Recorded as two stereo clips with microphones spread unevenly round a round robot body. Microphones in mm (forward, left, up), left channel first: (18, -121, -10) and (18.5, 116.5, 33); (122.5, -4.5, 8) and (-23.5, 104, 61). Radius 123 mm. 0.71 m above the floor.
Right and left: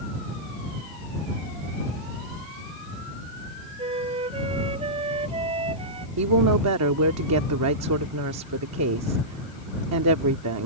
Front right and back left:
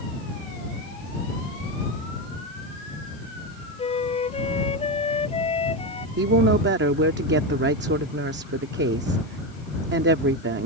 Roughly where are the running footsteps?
No running footsteps in this recording.